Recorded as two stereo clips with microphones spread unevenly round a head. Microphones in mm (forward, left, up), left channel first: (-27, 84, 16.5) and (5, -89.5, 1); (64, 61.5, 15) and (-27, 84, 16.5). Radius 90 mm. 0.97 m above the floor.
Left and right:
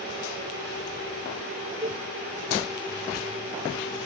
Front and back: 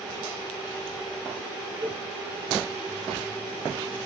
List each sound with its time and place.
1.8 s a cowbell: 160° right, 1.5 m